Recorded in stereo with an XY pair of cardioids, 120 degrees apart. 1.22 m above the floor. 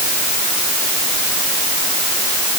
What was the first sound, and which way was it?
Only background noise.